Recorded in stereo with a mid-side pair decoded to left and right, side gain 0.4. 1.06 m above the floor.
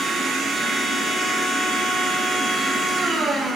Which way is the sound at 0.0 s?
60° right.